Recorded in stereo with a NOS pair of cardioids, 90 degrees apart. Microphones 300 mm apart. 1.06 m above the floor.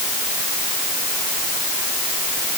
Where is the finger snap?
I don't hear a finger snap.